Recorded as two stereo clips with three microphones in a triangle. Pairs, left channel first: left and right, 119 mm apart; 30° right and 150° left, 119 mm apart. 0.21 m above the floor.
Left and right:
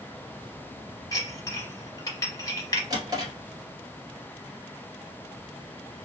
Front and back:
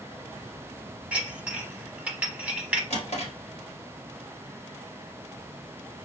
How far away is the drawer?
About 1.4 m.